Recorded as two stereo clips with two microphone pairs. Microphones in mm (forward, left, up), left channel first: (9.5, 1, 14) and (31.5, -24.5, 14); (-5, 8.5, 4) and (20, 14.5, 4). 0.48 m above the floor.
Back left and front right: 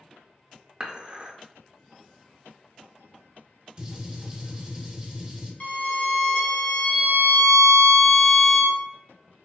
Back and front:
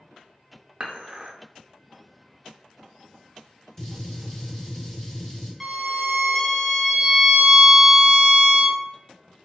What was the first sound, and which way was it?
Dishes clattering, 5° right.